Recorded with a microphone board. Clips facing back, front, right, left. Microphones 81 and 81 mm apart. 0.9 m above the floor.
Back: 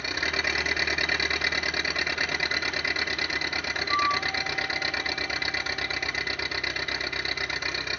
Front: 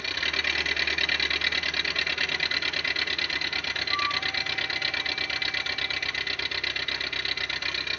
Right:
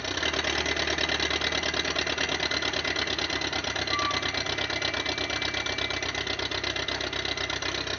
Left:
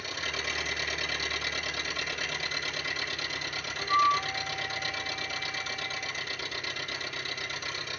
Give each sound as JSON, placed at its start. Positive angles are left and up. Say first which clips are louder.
{"t": 0.0, "sound": "an engine running", "louder": "back 2 dB, right 6 dB", "azimuth_deg": -110, "distance_m": 0.8}
{"t": 3.8, "sound": "a flute", "louder": "back 5 dB, left 7 dB", "azimuth_deg": 145, "distance_m": 1.1}